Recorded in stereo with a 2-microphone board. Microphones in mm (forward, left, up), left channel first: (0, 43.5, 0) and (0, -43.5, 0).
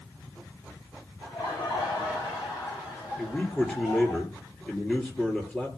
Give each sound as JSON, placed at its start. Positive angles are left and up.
{"t": 1.2, "sound": "laughter", "side_deg": 45, "distance_m": 8.5}
{"t": 3.2, "sound": "a man speaking", "side_deg": 10, "distance_m": 2.5}